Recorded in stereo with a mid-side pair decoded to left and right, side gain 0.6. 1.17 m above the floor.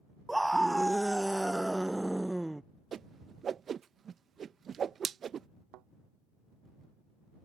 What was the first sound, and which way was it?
A scream, 5° right.